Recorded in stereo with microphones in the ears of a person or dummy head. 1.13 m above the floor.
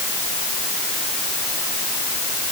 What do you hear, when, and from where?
Only background noise.